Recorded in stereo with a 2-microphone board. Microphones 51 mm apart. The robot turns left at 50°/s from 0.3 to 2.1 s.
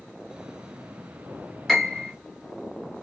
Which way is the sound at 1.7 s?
5° left (ahead or behind).